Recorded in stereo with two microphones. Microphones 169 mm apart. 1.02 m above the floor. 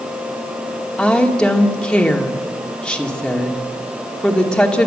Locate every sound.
1.0 s a woman speaking: 5° left (ahead or behind), 2 m